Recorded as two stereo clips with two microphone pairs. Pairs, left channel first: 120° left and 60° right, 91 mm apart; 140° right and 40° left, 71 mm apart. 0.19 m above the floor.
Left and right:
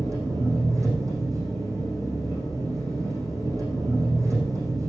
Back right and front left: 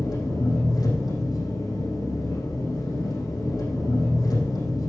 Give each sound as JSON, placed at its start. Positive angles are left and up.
{"t": 0.0, "sound": "an engine running", "azimuth_deg": -115, "distance_m": 6.5}